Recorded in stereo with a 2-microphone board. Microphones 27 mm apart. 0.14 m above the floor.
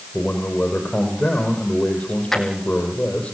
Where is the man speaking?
55° left (ahead or behind), 4.5 m.